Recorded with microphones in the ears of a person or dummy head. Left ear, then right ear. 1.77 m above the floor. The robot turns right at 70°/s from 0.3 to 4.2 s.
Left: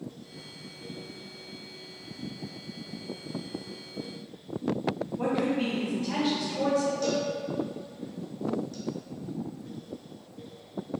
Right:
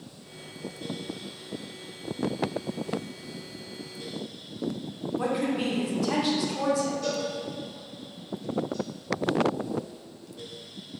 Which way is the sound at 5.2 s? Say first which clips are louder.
Right 1 dB; 60° right (ahead or behind).